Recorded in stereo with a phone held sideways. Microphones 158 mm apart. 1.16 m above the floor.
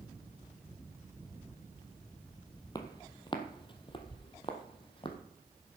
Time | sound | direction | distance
2.8 | footsteps | 25° left (ahead or behind) | 1.2 m